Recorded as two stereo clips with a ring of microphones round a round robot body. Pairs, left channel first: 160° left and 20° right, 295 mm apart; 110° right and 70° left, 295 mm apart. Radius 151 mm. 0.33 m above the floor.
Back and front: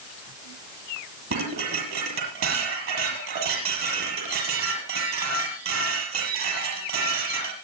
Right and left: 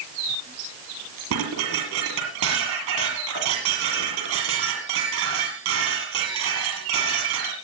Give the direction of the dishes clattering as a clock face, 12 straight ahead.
11 o'clock.